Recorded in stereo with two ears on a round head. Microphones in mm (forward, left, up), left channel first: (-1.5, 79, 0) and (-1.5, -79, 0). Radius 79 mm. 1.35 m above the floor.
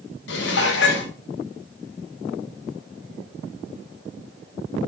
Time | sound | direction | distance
0.3 | dishes clattering | 65° left (ahead or behind) | 0.9 m